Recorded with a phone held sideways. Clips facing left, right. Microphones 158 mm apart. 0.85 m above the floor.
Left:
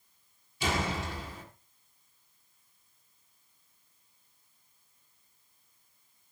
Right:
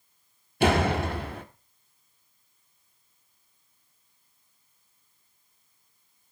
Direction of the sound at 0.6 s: 65° right (ahead or behind).